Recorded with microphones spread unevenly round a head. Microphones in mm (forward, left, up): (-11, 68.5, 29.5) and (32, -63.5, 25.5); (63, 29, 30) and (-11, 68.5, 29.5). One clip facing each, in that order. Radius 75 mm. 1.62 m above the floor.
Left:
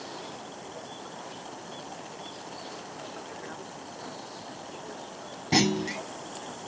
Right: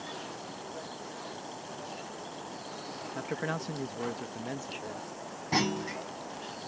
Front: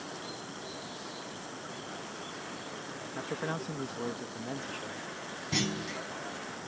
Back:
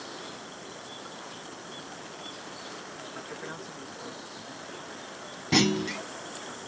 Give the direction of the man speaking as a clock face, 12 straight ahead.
3 o'clock.